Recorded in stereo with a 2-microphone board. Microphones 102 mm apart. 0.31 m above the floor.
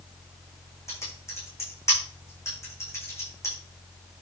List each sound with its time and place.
0.9 s typing on a keyboard: 30° left (ahead or behind), 7 m